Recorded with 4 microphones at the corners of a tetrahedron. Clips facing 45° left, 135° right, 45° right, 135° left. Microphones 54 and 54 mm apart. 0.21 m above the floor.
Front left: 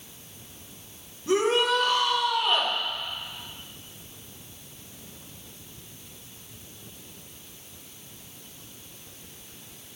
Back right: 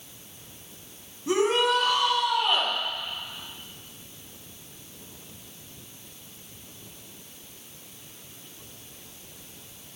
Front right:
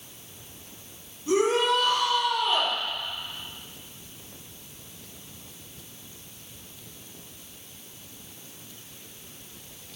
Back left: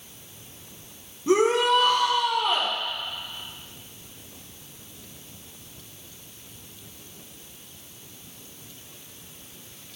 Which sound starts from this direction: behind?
A shout, at 1.3 s.